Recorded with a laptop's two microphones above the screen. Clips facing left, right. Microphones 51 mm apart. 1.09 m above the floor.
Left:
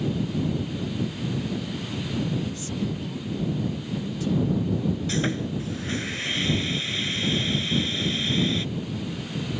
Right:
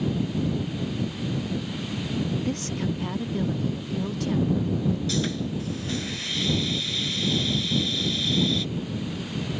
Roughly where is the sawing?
Left.